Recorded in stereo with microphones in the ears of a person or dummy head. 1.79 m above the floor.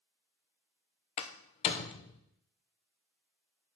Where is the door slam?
25° left (ahead or behind), 0.7 m.